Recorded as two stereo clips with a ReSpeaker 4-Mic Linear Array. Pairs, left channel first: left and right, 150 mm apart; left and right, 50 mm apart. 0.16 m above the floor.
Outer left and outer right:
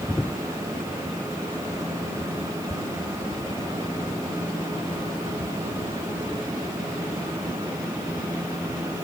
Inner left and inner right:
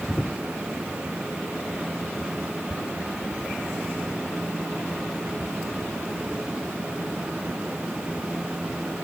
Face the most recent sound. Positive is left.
No sound to turn to.